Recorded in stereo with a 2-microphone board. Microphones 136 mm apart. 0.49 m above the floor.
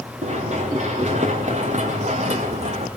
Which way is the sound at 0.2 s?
60° right (ahead or behind).